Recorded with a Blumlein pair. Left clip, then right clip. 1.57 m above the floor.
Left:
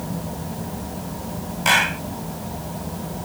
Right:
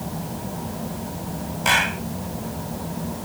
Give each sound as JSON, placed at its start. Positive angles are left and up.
{"t": 1.6, "sound": "a clap", "azimuth_deg": 5}